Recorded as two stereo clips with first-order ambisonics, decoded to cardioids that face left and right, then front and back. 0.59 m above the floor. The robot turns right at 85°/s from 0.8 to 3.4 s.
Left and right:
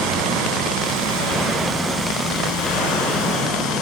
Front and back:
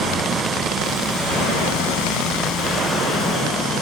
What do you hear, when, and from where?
0.0 s running water: 105° right, 3.5 m; by 3.8 s 115° left, 3.5 m